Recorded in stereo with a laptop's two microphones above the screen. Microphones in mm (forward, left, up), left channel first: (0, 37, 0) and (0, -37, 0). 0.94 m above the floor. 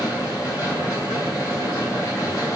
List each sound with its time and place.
0.0 s a machine running: 45° left (ahead or behind), 7.5 m